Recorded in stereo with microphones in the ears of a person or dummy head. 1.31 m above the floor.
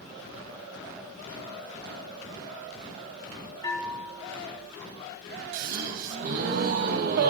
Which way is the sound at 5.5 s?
65° right (ahead or behind).